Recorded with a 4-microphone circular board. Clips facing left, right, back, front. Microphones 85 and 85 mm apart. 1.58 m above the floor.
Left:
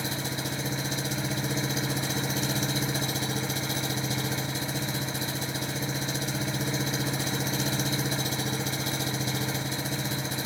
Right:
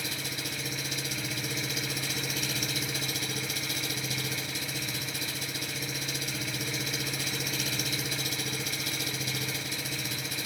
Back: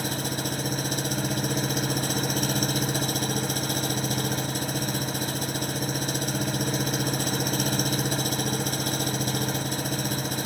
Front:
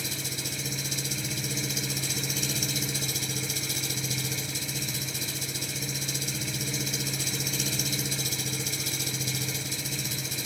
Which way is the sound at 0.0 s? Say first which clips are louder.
Left 5 dB, back 8 dB; 150° left.